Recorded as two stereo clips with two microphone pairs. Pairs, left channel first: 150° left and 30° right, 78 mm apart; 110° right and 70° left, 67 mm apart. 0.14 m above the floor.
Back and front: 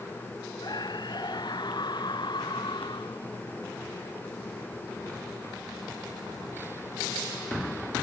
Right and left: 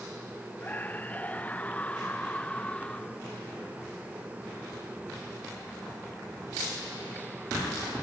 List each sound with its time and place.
0.6 s a scream: 175° right; by 3.2 s 175° left